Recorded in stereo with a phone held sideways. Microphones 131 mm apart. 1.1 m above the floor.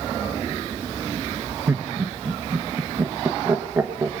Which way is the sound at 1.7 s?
15° right (ahead or behind).